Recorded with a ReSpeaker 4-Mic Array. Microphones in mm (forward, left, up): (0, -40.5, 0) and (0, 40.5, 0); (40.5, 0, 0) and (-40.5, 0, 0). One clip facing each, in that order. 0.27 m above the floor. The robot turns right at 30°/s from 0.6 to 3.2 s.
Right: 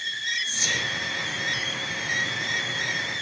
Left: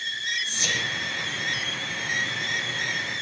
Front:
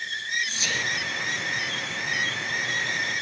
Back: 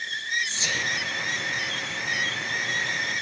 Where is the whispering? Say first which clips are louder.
Even, even; 120° left, 8 m; by 0.8 s 125° left, 8 m.